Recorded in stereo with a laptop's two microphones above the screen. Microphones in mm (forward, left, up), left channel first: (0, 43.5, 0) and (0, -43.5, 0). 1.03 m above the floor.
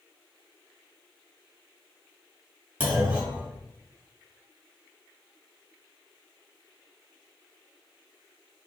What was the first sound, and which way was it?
A clunk, 20° right (ahead or behind).